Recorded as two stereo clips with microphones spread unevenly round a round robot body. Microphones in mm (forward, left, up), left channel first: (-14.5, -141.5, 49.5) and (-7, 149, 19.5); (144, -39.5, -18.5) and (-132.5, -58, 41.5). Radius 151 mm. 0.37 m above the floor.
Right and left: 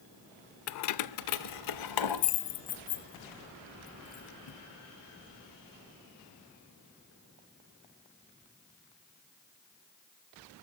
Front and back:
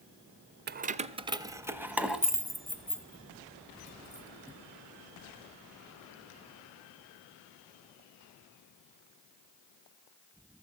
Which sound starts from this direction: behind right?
Keys jangling, at 0.7 s.